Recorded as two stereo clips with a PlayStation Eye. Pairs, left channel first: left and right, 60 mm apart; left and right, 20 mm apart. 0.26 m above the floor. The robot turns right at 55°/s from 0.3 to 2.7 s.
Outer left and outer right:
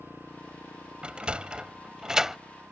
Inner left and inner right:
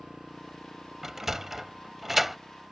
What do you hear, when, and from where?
0.0 s a motorcycle: 45° left (ahead or behind); by 2.7 s 25° left (ahead or behind)
1.0 s a sliding door: 20° right (ahead or behind); by 2.4 s 10° right (ahead or behind)